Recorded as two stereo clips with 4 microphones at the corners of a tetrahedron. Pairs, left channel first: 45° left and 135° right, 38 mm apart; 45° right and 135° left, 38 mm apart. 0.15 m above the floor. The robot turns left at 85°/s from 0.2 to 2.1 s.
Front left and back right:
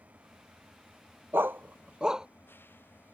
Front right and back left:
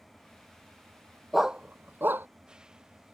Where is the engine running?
135° right; by 3.1 s 65° left.